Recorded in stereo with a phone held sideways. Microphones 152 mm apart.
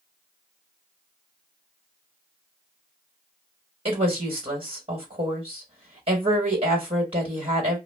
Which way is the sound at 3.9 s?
40° right (ahead or behind).